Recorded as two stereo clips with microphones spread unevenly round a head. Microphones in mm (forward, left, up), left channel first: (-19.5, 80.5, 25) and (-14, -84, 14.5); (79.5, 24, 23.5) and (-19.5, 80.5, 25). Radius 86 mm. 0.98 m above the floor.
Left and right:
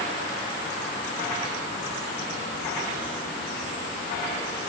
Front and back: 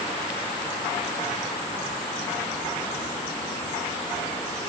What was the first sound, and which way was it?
Only background noise.